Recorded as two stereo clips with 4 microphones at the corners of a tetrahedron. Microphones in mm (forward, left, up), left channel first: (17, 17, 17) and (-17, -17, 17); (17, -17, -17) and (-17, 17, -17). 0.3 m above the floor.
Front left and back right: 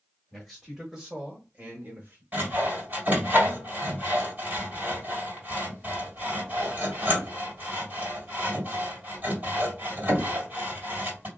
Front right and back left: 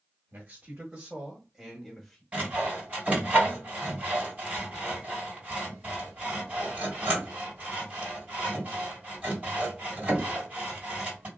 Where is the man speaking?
130° left, 1.2 m; by 2.2 s 125° right, 1.3 m.